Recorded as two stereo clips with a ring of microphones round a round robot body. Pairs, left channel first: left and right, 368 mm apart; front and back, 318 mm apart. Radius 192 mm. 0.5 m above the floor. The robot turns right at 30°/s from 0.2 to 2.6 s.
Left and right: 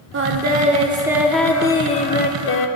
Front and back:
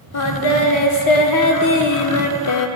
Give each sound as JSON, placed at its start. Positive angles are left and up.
{"t": 0.1, "sound": "singing", "azimuth_deg": -35, "distance_m": 0.8}